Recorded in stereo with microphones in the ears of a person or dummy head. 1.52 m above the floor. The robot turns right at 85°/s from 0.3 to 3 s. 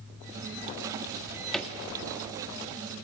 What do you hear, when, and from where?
1.1 s a drawer: 35° right (ahead or behind), 1.7 m; by 1.7 s 10° left (ahead or behind), 1.7 m